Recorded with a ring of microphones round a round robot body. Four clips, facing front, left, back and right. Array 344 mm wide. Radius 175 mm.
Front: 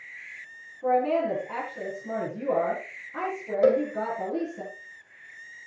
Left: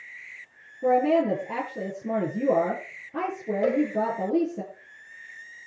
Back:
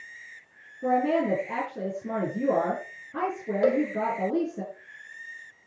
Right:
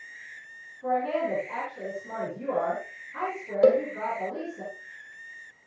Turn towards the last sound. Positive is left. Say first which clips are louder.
# right 4 dB, front 2 dB
turn(degrees=-65)